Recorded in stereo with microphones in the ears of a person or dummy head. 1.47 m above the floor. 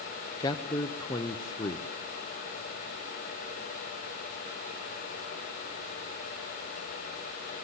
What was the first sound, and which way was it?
A man speaking, 20° left (ahead or behind).